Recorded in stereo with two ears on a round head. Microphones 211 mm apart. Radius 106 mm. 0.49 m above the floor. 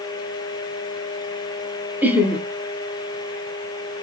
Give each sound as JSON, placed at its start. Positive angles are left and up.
{"t": 2.0, "sound": "laughter", "side_deg": -10, "distance_m": 0.8}